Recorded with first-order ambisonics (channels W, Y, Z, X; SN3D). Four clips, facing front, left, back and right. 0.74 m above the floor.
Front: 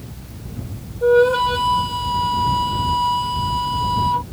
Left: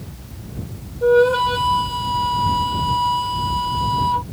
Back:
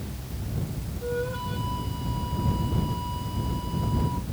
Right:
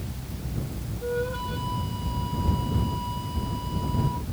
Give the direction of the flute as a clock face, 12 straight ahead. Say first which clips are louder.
Left 16 dB, front 17 dB; 10 o'clock.